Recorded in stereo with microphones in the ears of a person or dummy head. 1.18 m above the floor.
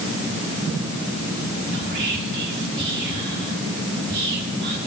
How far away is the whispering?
About 3.5 m.